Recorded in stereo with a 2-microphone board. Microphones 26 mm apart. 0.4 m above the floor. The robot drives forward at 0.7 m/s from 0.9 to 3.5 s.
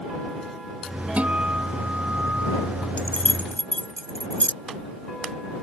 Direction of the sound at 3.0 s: 60° left (ahead or behind).